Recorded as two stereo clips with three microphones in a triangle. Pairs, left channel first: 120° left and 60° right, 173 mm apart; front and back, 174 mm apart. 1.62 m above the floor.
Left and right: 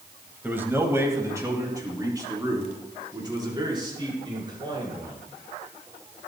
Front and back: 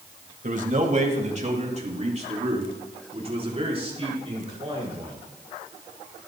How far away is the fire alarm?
No fire alarm in this recording.